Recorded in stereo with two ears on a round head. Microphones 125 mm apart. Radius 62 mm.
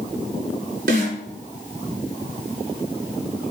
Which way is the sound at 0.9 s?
70° right (ahead or behind).